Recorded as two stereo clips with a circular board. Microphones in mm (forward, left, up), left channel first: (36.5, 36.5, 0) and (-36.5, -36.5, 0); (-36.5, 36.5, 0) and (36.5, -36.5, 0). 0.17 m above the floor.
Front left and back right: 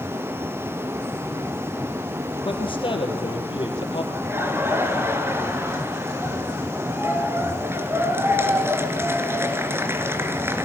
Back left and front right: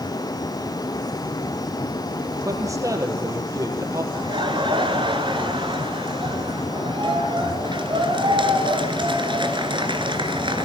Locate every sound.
2.5 s a man speaking: 10° left, 4 m
4.1 s laughter: 70° right, 3 m